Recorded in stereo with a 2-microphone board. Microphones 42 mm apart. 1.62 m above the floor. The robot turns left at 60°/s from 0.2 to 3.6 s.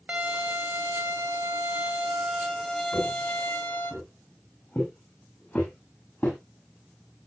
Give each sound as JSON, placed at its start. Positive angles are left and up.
{"t": 0.1, "sound": "a violin", "azimuth_deg": -35, "distance_m": 1.9}
{"t": 2.9, "sound": "footsteps", "side_deg": 75, "distance_m": 6.5}